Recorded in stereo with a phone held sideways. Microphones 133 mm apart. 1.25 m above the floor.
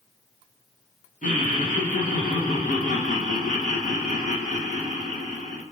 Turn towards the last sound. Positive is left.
turn(degrees=70)  # may be behind; listen again after turning